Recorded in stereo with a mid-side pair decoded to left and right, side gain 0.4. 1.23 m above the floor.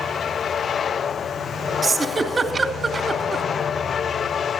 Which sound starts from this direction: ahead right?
A giggle, at 1.8 s.